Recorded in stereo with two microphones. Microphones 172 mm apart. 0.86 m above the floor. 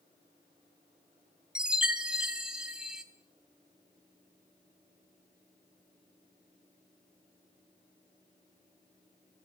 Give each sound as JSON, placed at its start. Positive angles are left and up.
{"t": 1.6, "sound": "a chime", "side_deg": -5, "distance_m": 1.3}